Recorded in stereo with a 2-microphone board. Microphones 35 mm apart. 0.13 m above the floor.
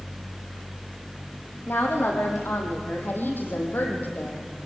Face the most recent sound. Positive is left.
turn(degrees=65)  # may be behind; listen again after turning